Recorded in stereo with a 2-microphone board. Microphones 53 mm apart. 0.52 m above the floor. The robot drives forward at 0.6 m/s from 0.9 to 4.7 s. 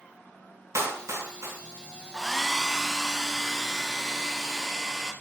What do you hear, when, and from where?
0.8 s a clap: 75° right (ahead or behind), 5 m; by 1.6 s 80° right, 4.5 m
2.1 s a hair dryer: 5° left (ahead or behind), 0.7 m; by 5.1 s centre (ahead or behind), 2 m